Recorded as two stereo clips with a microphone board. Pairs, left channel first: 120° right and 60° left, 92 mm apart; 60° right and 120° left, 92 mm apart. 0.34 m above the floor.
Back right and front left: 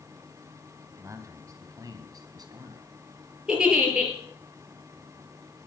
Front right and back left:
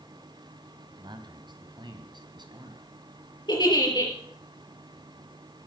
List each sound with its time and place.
1.0 s a man speaking: 110° left, 2.5 m; by 2.9 s 90° left, 3 m
3.5 s a giggle: 20° right, 4.5 m